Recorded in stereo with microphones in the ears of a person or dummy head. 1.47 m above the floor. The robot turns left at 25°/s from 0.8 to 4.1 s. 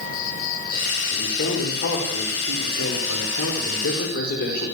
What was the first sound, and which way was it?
An insect, 50° left.